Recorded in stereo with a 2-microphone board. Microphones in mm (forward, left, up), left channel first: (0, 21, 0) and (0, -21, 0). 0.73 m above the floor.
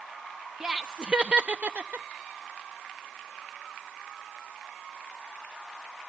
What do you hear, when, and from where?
0.6 s laughter: 15° right (ahead or behind), 0.7 m; by 2.1 s 40° right (ahead or behind), 0.6 m